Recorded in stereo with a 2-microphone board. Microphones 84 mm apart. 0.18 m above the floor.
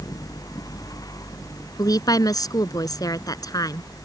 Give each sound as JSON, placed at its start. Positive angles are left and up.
{"t": 1.8, "sound": "a woman speaking", "side_deg": 50}